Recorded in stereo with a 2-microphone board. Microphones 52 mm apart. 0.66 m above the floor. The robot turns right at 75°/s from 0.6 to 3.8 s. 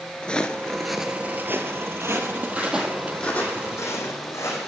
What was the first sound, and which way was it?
Footsteps, 20° left (ahead or behind).